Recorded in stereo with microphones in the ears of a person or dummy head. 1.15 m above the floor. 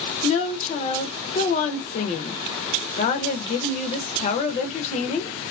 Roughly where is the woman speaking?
Left.